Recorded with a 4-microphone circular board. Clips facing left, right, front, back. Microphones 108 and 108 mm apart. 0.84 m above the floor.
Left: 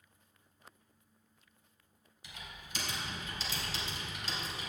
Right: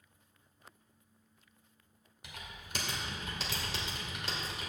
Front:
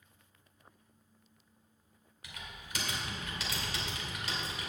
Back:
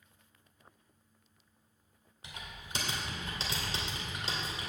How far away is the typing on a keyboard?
About 2 m.